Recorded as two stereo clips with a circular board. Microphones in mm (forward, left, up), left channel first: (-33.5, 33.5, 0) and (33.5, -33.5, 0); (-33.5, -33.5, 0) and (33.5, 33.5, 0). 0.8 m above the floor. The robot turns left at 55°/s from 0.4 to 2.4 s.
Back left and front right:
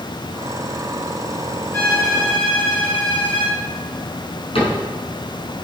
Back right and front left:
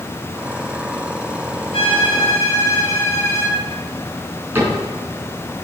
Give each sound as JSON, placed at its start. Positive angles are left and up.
{"t": 1.7, "sound": "a violin", "azimuth_deg": -160, "distance_m": 4.5}
{"t": 4.5, "sound": "a cupboard door", "azimuth_deg": 115, "distance_m": 4.5}